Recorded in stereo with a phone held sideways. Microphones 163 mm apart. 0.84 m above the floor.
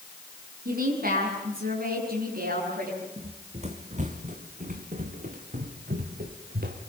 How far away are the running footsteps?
About 2.5 m.